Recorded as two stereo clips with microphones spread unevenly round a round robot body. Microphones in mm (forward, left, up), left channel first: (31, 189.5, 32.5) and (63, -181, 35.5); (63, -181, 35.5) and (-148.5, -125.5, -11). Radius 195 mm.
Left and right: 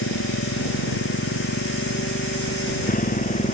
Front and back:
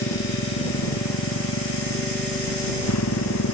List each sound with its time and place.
0.0 s a motorcycle: 35° left; by 3.5 s 25° left